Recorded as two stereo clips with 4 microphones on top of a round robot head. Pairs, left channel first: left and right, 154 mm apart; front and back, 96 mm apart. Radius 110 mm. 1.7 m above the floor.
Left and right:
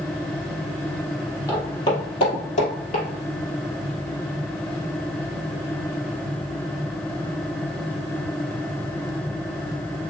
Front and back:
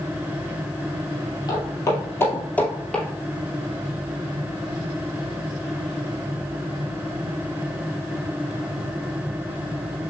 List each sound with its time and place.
1.5 s footsteps: 25° left, 2.5 m; by 3.0 s 85° left, 2 m